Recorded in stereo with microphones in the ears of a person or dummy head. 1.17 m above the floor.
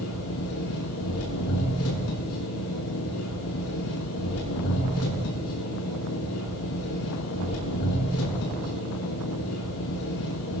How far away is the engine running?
About 6 m.